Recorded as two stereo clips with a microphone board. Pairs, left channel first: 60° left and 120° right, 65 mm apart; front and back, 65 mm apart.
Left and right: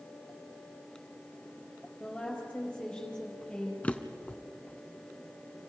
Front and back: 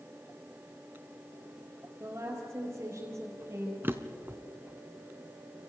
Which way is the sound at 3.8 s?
125° left.